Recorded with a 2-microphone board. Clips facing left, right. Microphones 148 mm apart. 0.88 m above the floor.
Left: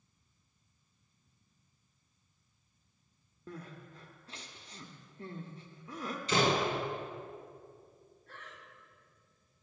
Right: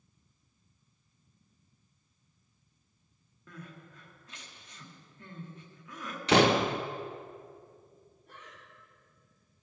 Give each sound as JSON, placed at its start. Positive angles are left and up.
{"t": 3.5, "sound": "crying", "side_deg": 30, "distance_m": 1.0}
{"t": 6.3, "sound": "a door slam", "side_deg": -70, "distance_m": 0.6}
{"t": 8.3, "sound": "breathing", "side_deg": -15, "distance_m": 1.6}